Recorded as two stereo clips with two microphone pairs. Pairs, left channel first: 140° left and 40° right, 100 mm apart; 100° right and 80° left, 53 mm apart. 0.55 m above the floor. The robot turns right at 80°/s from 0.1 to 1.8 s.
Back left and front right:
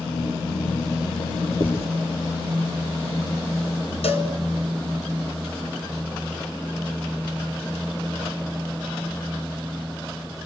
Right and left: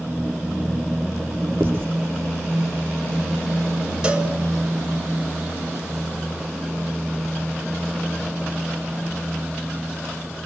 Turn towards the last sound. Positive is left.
turn(degrees=155)